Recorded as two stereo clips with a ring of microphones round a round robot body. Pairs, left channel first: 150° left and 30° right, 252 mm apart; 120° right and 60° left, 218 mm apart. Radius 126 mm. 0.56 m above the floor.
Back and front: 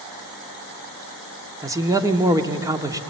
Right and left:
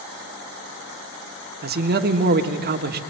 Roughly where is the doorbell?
No doorbell in this recording.